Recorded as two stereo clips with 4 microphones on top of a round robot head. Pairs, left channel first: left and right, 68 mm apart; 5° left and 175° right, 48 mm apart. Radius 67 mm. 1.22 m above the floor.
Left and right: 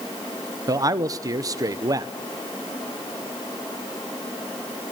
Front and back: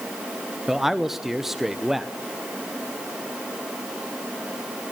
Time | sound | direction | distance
0.7 | a man speaking | 90° right | 0.9 m